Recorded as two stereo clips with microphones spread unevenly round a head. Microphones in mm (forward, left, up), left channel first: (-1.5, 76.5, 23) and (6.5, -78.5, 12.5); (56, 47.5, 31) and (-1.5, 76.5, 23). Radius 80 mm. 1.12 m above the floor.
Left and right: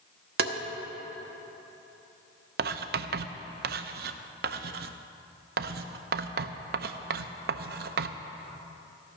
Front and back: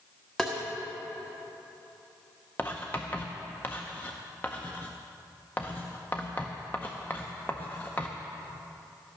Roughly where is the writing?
Right.